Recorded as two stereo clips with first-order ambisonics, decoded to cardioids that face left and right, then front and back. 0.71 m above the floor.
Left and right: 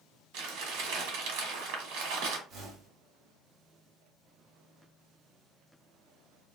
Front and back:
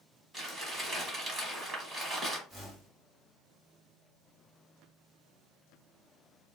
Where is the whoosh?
105° right, 1.0 m.